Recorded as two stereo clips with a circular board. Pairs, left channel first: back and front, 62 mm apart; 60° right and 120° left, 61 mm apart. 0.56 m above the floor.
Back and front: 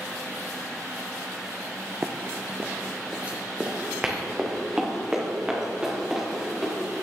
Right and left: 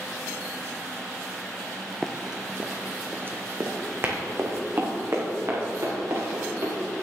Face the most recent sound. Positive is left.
turn(degrees=80)